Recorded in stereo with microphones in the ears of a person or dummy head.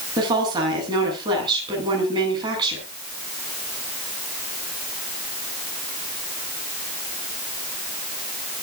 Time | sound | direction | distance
0.2 | a woman speaking | 25° right (ahead or behind) | 9.5 m